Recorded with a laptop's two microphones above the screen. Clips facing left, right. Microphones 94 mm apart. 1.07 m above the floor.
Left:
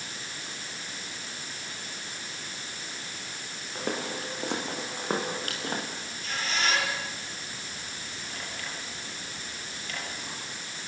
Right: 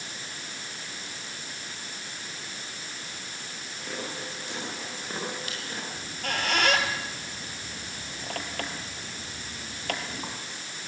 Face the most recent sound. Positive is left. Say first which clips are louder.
# right 4 dB
turn(degrees=-65)  # may be behind; listen again after turning